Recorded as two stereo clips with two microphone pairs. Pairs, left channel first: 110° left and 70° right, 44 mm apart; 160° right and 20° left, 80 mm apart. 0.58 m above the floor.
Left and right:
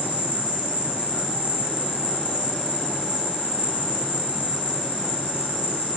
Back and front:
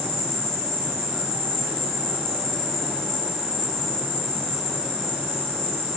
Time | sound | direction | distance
0.0 | an insect | 75° left | 1.3 m